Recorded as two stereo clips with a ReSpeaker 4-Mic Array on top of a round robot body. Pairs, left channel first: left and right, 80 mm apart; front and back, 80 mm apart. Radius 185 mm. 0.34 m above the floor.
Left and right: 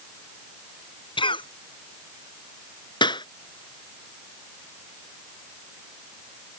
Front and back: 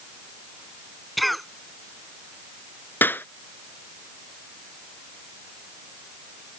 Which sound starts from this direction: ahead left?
A clap, at 3.0 s.